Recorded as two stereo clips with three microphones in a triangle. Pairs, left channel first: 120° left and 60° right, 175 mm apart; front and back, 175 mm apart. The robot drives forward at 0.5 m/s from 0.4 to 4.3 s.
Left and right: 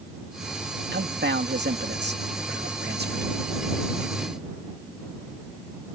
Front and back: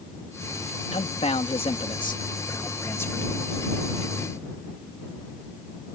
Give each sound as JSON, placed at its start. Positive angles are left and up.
{"t": 0.9, "sound": "a man speaking", "azimuth_deg": -50}